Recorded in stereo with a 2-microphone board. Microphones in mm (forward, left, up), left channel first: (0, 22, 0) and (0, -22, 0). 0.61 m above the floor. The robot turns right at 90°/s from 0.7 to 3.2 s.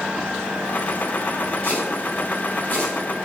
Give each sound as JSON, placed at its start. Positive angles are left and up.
{"t": 1.6, "sound": "chopping", "side_deg": 30, "distance_m": 3.5}